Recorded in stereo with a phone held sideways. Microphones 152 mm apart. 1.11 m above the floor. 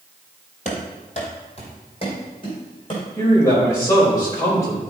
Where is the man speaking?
20° left (ahead or behind), 4 m.